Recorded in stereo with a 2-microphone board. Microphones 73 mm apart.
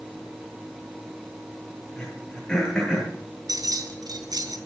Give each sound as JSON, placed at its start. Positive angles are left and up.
{"t": 2.0, "sound": "throat clearing", "side_deg": 10, "distance_m": 9.0}
{"t": 3.5, "sound": "keys jangling", "side_deg": -60, "distance_m": 3.5}